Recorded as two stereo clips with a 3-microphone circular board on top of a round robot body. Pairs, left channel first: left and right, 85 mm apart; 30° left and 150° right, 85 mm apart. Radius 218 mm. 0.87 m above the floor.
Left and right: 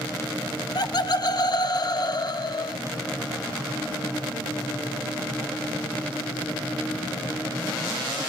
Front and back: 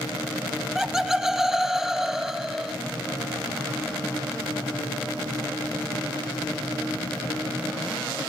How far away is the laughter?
About 1.1 m.